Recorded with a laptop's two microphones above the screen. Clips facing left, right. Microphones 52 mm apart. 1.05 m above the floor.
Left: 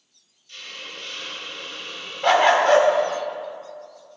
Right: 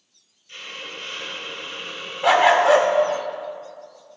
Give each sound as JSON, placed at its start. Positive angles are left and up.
{"t": 0.5, "sound": "a hiss", "side_deg": -30, "distance_m": 0.6}
{"t": 2.2, "sound": "a dog barking", "side_deg": -5, "distance_m": 0.8}